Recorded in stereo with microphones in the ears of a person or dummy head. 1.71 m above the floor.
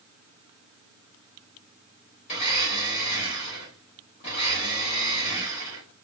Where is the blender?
25° left (ahead or behind), 0.8 m.